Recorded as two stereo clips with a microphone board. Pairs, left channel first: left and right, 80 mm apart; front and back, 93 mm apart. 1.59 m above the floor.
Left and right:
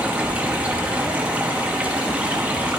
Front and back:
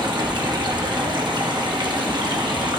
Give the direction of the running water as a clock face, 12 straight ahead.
5 o'clock.